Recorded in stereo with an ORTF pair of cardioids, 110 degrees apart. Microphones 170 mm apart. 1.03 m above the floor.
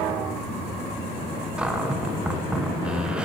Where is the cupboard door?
5° right, 0.7 m.